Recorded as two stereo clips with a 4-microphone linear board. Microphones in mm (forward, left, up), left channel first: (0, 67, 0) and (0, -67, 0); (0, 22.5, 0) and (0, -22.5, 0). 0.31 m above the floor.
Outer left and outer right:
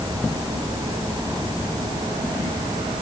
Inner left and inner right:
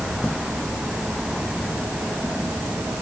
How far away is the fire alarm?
No fire alarm in this recording.